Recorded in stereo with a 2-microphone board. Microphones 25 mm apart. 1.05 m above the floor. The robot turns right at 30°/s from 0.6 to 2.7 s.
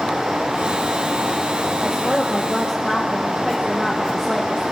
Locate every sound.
1.8 s a woman speaking: 15° right (ahead or behind), 1.2 m; by 4.6 s 5° left (ahead or behind), 1.2 m